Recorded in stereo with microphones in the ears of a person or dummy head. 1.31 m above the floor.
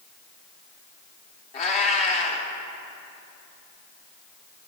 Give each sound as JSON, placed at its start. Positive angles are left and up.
{"t": 1.5, "sound": "a cat meowing", "side_deg": 40, "distance_m": 1.3}